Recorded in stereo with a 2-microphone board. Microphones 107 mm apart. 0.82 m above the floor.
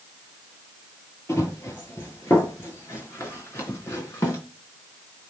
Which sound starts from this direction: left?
Running footsteps, at 1.3 s.